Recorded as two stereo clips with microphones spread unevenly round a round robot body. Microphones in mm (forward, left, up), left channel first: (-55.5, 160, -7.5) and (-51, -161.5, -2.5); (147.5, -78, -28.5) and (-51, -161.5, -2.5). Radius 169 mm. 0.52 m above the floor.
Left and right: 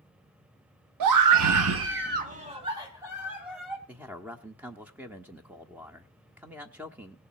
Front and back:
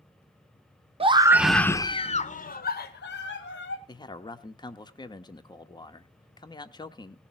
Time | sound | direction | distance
1.0 | a scream | 90° right | 1.0 m
3.9 | a man speaking | 5° right | 1.1 m